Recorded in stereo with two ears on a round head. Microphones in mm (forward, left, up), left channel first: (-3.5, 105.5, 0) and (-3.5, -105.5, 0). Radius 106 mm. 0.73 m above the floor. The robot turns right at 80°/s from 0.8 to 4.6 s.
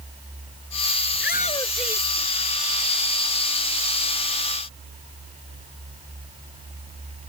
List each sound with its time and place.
1.1 s a shout: 125° left; by 3.1 s 75° right